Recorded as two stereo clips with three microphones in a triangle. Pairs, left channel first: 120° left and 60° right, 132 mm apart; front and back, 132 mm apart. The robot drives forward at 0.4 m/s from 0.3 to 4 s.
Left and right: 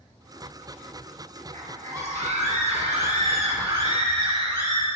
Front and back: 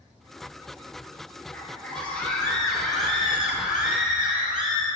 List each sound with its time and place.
1.5 s a scream: 75° right, 3 m; by 4.9 s 100° right, 2.5 m